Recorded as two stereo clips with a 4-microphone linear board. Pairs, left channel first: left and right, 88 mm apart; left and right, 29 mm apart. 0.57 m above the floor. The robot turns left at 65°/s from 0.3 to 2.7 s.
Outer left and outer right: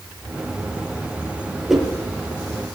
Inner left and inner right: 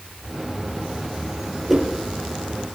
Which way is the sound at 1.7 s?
Centre (ahead or behind).